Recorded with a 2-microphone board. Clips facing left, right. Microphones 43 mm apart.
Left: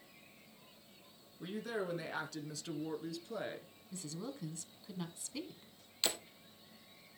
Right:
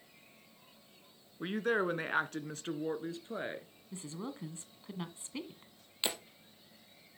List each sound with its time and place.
1.4 s a woman speaking: 50° right (ahead or behind), 1.6 m; by 3.7 s 20° right (ahead or behind), 2 m
3.9 s a woman speaking: 30° right (ahead or behind), 1.5 m
6.0 s breaking glass: 20° right (ahead or behind), 2.5 m